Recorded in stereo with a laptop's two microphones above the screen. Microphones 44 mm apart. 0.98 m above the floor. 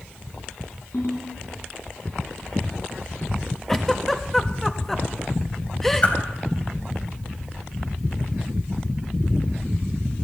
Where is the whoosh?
35° left (ahead or behind), 3 m.